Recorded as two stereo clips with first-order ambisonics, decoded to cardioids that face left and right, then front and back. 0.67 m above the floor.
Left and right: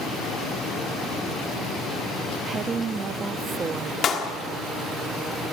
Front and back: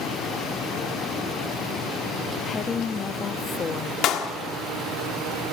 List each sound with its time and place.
2.5 s a woman speaking: 45° right, 0.5 m
4.0 s a clap: 40° left, 1.4 m